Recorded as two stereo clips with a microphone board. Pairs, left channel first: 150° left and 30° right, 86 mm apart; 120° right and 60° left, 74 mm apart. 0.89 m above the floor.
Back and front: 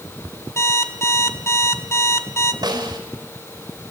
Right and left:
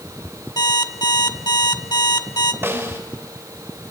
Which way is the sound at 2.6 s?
5° left.